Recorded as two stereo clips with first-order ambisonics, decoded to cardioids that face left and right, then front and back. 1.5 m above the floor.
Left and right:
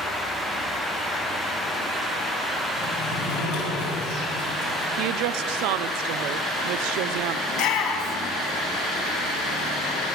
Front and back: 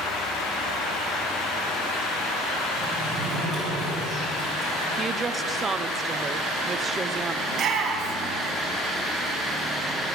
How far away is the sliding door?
About 5.5 m.